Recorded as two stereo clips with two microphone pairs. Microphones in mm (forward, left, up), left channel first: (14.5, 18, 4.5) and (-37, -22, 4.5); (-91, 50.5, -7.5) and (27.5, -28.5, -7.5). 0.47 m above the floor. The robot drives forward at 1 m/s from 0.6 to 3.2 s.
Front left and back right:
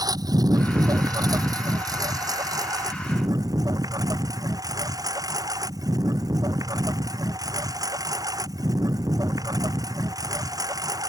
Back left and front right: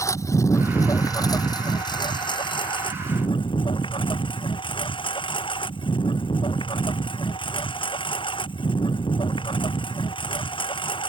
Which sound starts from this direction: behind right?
A lawn mower, at 0.0 s.